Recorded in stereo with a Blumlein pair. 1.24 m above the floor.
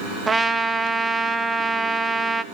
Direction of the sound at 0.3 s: 10° right.